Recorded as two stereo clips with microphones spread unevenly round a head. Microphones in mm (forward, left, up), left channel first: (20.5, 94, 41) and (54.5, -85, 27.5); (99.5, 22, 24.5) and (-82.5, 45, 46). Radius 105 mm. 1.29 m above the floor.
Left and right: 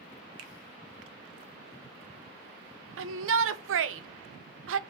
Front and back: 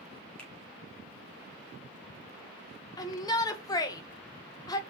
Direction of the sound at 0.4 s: 95° right.